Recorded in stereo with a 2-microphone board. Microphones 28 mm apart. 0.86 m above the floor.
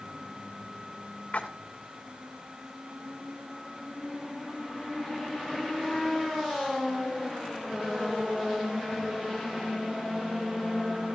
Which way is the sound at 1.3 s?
50° left (ahead or behind).